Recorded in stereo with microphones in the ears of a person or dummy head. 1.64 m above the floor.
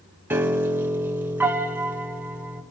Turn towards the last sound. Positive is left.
turn(degrees=-15)  # may be behind; listen again after turning